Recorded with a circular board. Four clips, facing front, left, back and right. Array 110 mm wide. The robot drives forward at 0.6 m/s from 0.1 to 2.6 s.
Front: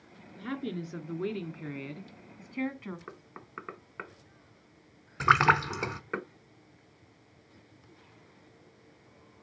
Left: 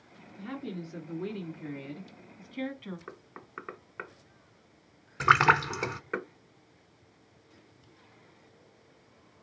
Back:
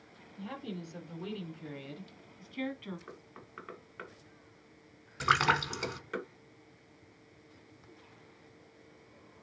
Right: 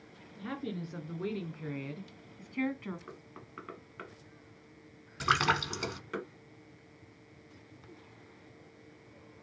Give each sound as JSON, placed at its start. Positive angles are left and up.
{"t": 0.4, "sound": "a woman speaking", "azimuth_deg": -10, "distance_m": 2.0}
{"t": 3.1, "sound": "knocking", "azimuth_deg": 45, "distance_m": 1.0}
{"t": 5.2, "sound": "a splash", "azimuth_deg": 50, "distance_m": 0.8}